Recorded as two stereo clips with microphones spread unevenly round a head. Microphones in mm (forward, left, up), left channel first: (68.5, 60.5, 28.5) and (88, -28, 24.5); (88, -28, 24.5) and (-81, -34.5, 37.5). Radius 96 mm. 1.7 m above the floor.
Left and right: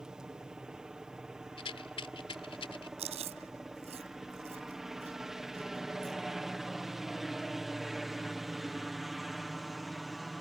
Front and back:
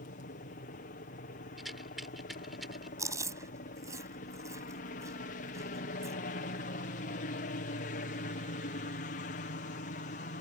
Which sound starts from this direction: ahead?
A helicopter, at 0.0 s.